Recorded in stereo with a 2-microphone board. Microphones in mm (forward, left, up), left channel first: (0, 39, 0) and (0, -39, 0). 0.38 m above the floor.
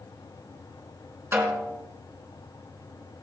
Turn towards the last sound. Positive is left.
turn(degrees=-30)  # may be behind; listen again after turning